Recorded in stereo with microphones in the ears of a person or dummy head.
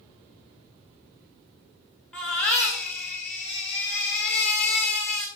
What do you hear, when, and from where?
2.1 s a baby crying: 5° left (ahead or behind), 2 m